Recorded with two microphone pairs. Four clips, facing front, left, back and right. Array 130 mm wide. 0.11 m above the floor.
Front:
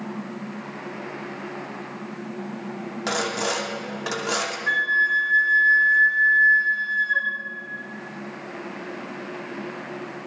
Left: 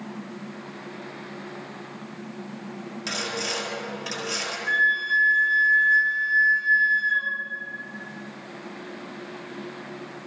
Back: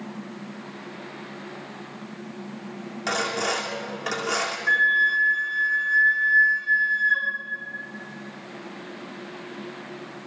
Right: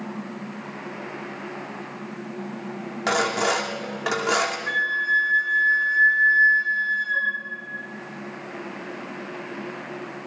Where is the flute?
30° right, 3 m.